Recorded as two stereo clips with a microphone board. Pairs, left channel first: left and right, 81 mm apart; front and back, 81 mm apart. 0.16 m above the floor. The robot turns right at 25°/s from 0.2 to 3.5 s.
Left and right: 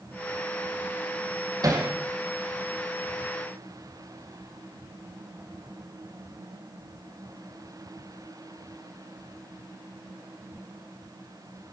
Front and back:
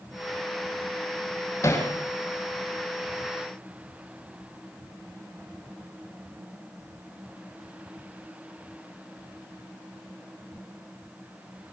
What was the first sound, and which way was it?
Hammering, 55° right.